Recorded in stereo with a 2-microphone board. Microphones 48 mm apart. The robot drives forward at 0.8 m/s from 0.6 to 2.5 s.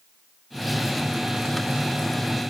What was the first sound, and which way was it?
Only background noise.